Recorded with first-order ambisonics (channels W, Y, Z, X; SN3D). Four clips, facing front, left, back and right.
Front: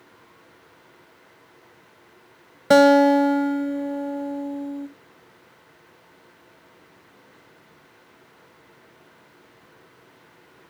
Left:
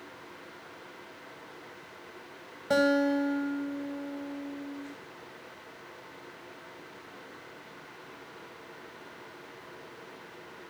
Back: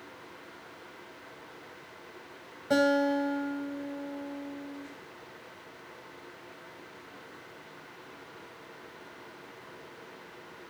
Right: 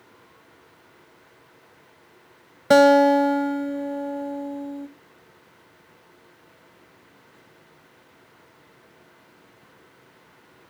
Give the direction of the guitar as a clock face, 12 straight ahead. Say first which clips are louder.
Right 11 dB, front 12 dB; 1 o'clock.